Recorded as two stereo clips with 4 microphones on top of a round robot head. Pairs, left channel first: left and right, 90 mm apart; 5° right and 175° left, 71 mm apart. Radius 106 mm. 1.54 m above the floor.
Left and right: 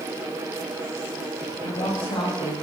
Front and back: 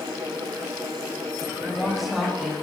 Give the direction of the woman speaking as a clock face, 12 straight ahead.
9 o'clock.